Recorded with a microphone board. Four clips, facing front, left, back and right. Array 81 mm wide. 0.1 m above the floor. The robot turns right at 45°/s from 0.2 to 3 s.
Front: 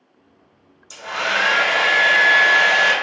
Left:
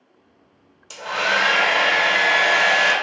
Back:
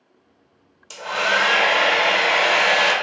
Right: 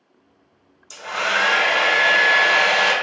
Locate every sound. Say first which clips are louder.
0.9 s a hair dryer: left 1 dB, back 2 dB; 140° left, 0.7 m; by 2.9 s 130° right, 0.7 m